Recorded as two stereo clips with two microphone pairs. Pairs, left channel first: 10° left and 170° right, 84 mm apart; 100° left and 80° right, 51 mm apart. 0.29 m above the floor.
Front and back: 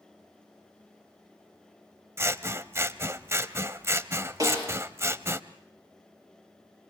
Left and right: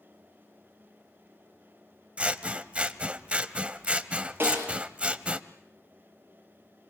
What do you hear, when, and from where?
2.2 s scissors: 140° right, 0.8 m
4.4 s a snare drum: 130° right, 7 m